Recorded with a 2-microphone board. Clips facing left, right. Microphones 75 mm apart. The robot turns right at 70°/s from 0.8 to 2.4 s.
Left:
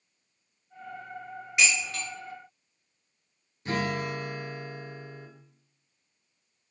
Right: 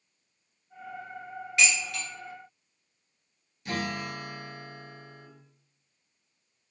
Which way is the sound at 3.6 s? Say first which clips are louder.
Left 3 dB; 35° left (ahead or behind).